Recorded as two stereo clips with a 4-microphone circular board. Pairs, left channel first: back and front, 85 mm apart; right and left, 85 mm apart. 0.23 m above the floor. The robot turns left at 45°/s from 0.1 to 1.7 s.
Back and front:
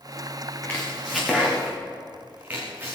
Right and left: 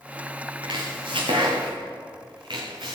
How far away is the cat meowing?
I don't hear a cat meowing.